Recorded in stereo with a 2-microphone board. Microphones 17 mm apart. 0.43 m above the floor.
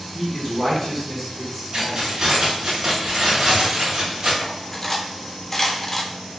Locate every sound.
0.1 s a man speaking: 5° left (ahead or behind), 0.8 m; by 2.1 s 10° right (ahead or behind), 2 m
1.7 s keys jangling: 35° right (ahead or behind), 1.4 m
4.4 s cutlery clinking: 20° left (ahead or behind), 0.5 m